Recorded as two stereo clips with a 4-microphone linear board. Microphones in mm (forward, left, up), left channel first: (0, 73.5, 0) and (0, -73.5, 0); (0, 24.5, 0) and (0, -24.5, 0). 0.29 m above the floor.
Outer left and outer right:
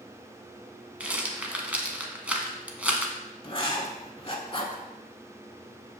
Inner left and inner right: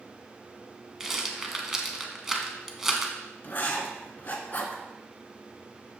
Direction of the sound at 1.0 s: 10° right (ahead or behind).